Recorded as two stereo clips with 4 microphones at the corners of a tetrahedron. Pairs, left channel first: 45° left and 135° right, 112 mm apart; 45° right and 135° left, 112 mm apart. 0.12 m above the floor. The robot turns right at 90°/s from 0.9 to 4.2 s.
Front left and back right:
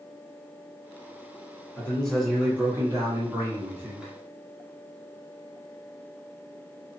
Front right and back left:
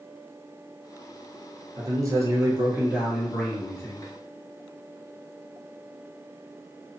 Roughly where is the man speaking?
Left.